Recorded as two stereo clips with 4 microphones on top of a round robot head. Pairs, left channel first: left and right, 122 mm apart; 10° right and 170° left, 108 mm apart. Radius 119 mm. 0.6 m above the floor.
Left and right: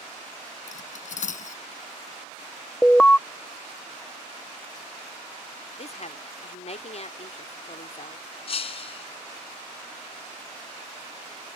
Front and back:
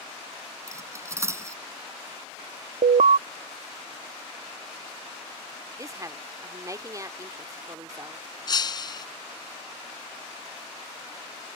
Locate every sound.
0.7 s cutlery clinking: 105° left
2.8 s an alarm: 170° left
5.8 s a woman speaking: 115° left
8.5 s breaking glass: 40° left